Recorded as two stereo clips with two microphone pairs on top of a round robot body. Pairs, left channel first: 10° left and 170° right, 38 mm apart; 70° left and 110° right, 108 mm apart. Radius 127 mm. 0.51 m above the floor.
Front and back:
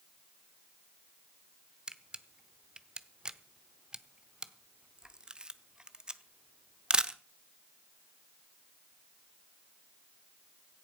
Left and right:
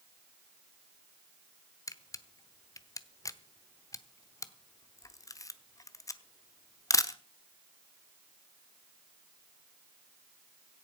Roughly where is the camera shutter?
Behind left.